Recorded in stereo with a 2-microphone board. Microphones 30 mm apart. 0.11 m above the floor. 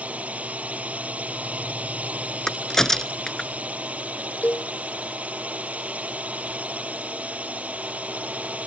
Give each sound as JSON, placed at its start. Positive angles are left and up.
{"t": 0.0, "sound": "a drone", "side_deg": -50}
{"t": 2.5, "sound": "a crack", "side_deg": 15}
{"t": 4.4, "sound": "a cowbell", "side_deg": 65}